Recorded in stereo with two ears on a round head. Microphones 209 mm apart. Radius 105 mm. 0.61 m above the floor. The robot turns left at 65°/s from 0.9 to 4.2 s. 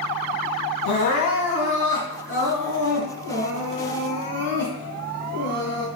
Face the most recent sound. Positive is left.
turn(degrees=-130)